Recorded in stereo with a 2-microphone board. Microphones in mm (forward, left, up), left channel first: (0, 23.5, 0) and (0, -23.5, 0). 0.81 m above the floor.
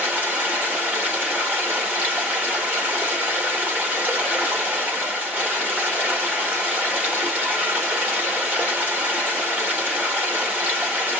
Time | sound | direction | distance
0.0 | running water | 25° right (ahead or behind) | 1.8 m